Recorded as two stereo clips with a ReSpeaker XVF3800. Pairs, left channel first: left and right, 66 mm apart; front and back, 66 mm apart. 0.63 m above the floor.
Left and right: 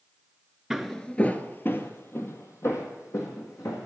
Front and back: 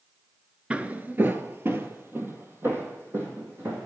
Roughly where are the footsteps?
Behind.